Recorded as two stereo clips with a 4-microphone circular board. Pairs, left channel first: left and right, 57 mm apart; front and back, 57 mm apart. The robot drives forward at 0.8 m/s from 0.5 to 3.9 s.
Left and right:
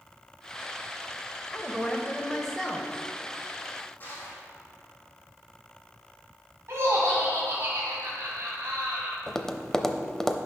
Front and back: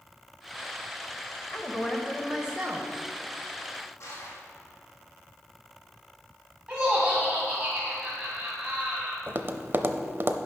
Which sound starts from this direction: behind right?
Laughter, at 6.7 s.